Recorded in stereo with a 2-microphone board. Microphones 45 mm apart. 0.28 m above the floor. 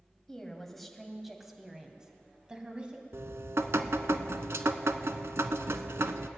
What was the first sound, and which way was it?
A woman speaking, 10° left (ahead or behind).